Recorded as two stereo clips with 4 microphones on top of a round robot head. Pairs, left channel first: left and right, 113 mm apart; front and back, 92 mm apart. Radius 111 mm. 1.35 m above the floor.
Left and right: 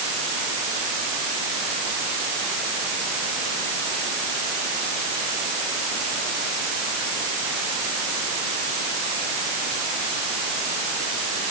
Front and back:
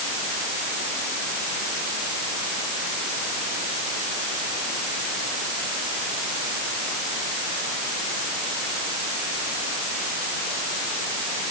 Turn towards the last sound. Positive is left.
No sound to turn to.